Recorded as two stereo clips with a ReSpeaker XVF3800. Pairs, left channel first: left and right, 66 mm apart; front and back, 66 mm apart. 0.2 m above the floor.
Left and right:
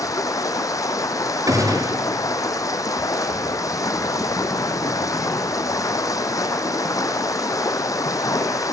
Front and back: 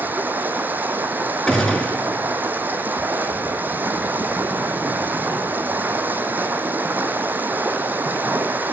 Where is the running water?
120° left, 1.0 m.